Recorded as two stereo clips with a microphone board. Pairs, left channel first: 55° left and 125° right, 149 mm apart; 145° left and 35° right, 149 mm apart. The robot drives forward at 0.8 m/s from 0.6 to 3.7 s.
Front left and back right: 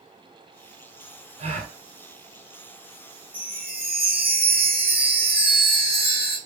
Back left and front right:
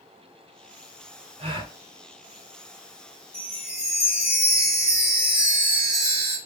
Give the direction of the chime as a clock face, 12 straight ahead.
4 o'clock.